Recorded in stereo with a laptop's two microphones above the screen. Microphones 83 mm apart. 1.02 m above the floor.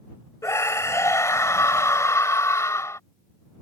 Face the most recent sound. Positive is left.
turn(degrees=35)  # may be behind; listen again after turning